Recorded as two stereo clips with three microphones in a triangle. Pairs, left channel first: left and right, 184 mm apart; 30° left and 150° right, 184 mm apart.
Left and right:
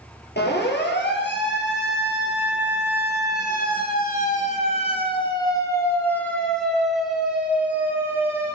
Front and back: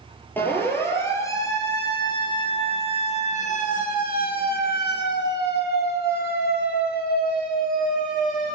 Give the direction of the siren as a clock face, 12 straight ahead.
8 o'clock.